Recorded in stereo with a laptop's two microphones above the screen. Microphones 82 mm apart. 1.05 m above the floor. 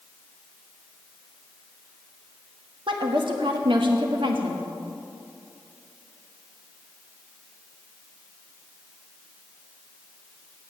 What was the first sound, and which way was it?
A woman speaking, 80° right.